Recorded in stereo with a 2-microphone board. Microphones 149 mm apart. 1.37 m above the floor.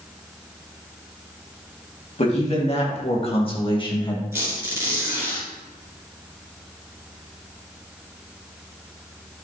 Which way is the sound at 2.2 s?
45° left (ahead or behind).